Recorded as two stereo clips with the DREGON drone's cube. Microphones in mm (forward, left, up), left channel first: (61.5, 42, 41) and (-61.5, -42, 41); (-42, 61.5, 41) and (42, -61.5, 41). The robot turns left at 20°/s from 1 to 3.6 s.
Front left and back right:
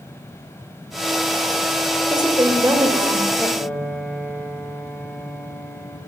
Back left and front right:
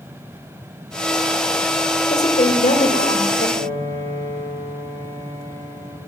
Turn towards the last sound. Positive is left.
turn(degrees=-50)